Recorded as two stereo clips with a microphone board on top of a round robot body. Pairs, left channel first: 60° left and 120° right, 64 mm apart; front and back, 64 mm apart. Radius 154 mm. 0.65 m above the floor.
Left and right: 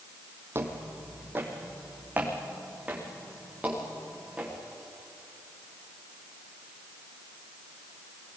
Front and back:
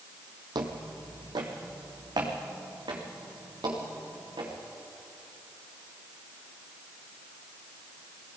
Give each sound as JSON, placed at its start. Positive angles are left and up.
{"t": 0.6, "sound": "footsteps", "azimuth_deg": -175, "distance_m": 1.6}